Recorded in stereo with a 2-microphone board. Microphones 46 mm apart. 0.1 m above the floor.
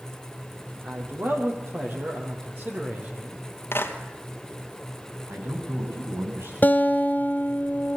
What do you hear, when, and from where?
0.8 s a man speaking: 50° right (ahead or behind), 5 m; by 3.4 s 35° right (ahead or behind), 4 m
3.7 s a clap: 60° left (ahead or behind), 2 m
5.3 s a man speaking: 65° right (ahead or behind), 9.5 m
6.6 s a guitar: 40° left (ahead or behind), 1.4 m